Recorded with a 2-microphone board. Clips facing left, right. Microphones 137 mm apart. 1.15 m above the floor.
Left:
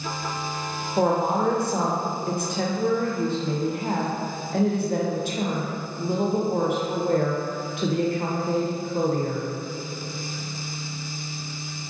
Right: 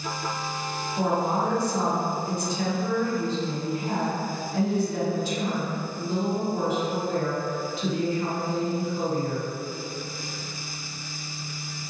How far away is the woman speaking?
About 0.7 m.